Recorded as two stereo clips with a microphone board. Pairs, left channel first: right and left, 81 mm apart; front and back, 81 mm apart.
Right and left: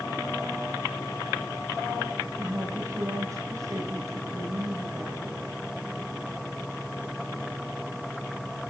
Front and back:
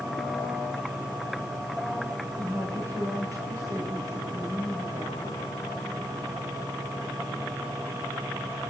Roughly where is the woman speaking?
Behind left.